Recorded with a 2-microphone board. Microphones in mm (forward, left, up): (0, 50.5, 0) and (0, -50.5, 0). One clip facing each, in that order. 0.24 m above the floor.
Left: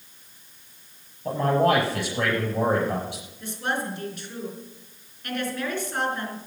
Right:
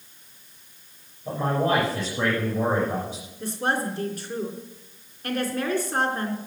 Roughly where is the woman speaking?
Right.